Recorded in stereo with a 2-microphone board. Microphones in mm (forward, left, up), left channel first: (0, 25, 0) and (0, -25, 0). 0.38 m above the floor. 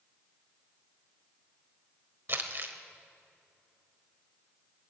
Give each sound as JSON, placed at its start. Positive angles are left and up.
{"t": 2.3, "sound": "crumpling", "side_deg": -50, "distance_m": 1.2}